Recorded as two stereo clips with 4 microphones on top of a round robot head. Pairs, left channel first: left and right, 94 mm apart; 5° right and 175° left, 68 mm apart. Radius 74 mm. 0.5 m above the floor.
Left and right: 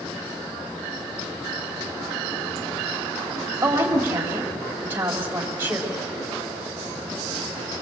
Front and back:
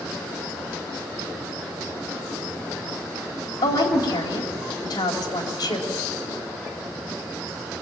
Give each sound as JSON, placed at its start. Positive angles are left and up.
{"t": 3.6, "sound": "a woman speaking", "azimuth_deg": -20, "distance_m": 3.0}